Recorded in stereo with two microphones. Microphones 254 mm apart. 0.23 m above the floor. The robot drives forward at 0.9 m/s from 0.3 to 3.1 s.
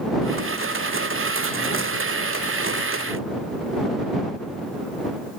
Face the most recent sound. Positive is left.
No sound to turn to.